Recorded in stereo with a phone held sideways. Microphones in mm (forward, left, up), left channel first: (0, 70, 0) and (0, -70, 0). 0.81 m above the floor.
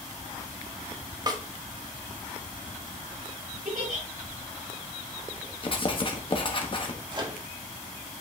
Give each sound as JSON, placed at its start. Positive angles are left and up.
{"t": 1.3, "sound": "a snare drum", "side_deg": -30, "distance_m": 1.1}
{"t": 3.6, "sound": "a giggle", "side_deg": -80, "distance_m": 4.0}
{"t": 5.6, "sound": "writing", "side_deg": 35, "distance_m": 1.2}
{"t": 7.1, "sound": "a microwave", "side_deg": -30, "distance_m": 1.4}